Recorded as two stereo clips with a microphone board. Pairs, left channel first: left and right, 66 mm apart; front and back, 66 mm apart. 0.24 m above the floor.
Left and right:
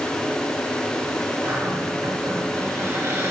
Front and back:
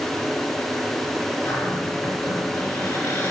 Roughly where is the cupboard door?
Ahead right.